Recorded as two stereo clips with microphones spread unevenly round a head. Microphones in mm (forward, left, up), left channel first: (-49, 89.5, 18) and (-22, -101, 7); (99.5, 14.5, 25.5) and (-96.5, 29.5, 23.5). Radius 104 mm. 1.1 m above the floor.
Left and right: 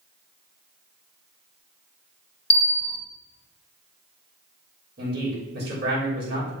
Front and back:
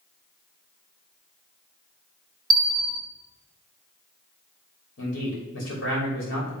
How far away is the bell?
About 0.9 m.